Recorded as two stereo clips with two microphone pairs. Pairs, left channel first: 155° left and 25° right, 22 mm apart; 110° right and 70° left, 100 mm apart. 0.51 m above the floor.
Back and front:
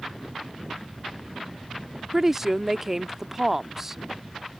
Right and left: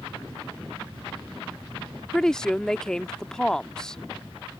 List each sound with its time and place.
2.1 s a woman speaking: 25° right